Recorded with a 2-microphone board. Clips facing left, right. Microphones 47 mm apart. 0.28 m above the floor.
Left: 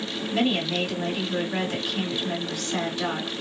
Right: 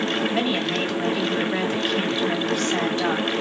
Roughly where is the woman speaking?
Right.